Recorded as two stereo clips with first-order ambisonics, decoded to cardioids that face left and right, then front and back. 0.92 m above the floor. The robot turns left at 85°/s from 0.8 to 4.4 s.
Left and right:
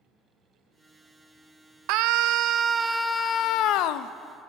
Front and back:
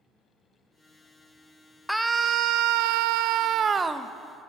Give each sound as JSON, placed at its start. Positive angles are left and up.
{"t": 1.9, "sound": "a scream", "azimuth_deg": -90, "distance_m": 0.5}